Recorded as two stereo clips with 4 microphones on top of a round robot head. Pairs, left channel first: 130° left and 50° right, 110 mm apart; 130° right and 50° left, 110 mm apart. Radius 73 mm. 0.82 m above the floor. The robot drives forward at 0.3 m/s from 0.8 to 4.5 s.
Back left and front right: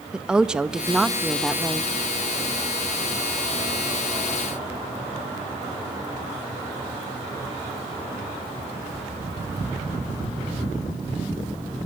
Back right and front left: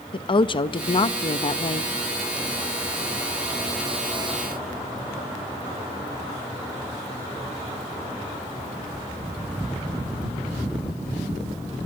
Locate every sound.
0.1 s a woman speaking: 130° right, 1.0 m; by 1.9 s 145° right, 1.1 m